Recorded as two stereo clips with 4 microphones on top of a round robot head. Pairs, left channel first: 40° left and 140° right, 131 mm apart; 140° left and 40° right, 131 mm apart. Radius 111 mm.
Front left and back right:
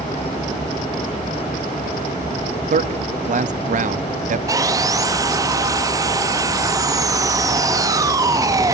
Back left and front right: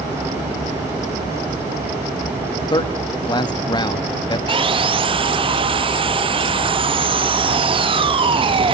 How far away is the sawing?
About 2.0 m.